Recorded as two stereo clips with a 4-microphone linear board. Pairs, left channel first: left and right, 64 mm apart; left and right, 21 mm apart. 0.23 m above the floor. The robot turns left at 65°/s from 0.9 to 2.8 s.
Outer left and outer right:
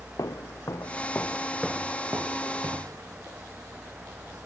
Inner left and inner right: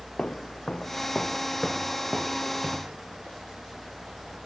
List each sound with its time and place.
0.2 s footsteps: 65° left (ahead or behind); by 3.0 s 85° right